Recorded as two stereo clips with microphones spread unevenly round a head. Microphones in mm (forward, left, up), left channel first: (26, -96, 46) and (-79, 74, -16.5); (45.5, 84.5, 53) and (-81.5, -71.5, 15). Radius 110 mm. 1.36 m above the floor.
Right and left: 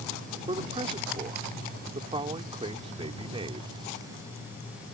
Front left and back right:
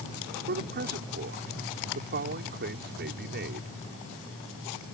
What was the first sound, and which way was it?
A man speaking, 170° right.